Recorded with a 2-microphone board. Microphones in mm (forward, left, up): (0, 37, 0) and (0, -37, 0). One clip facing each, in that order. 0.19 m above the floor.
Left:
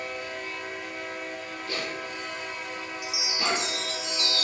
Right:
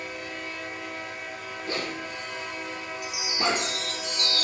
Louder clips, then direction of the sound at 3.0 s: Right 3 dB; 55° right (ahead or behind).